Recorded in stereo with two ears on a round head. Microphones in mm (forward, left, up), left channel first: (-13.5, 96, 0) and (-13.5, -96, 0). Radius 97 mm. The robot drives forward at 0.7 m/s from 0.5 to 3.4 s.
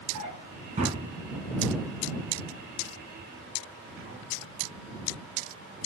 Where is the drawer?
30° right (ahead or behind), 1.9 m; by 5.9 s 65° right (ahead or behind), 1.0 m.